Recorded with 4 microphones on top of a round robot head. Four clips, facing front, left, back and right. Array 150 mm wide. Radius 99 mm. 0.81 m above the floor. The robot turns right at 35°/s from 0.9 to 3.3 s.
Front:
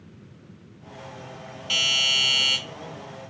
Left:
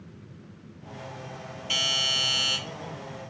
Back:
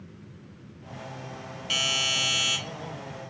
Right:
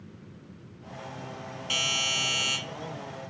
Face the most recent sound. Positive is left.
turn(degrees=20)